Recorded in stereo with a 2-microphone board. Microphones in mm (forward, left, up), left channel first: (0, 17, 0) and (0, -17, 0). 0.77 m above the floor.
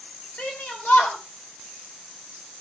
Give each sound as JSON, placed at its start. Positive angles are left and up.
{"t": 0.4, "sound": "a shout", "side_deg": 50, "distance_m": 3.0}